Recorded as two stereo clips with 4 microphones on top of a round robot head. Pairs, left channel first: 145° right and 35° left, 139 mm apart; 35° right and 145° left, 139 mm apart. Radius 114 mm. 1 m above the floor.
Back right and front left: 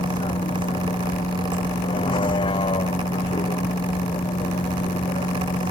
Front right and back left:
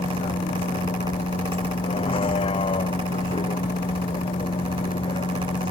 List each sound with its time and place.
0.0 s a vehicle: 90° right